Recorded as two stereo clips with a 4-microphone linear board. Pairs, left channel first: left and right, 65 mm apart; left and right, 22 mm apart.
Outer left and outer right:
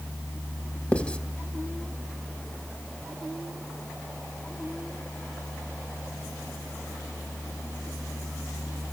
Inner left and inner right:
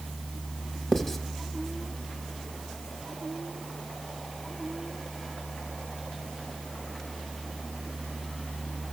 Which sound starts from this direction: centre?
Writing, at 0.9 s.